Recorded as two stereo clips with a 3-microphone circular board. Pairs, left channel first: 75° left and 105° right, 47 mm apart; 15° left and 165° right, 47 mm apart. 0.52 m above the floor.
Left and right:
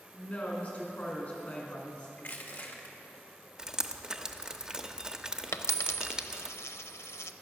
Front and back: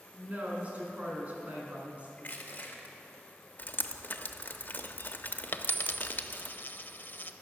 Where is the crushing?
55° left, 1.6 m.